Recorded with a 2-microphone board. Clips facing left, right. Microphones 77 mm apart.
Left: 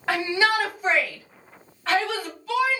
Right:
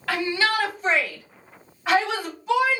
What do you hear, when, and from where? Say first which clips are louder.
0.1 s a shout: left 1 dB; 25° left (ahead or behind), 1.6 m; by 2.8 s 30° right (ahead or behind), 1.6 m